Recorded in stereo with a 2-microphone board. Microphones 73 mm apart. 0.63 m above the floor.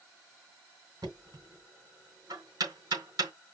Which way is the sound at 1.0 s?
55° right (ahead or behind).